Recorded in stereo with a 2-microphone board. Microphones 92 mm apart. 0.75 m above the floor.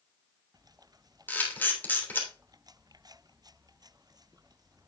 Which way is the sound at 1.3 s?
20° left (ahead or behind).